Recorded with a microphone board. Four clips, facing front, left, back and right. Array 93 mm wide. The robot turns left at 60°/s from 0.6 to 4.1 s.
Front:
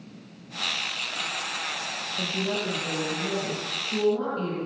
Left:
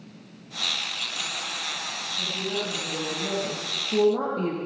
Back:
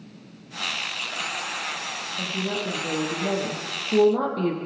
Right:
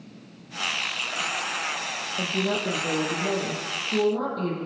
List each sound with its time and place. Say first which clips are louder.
2.2 s a woman speaking: right 5 dB, even; 85° right, 8.5 m; by 4.5 s 160° left, 8.5 m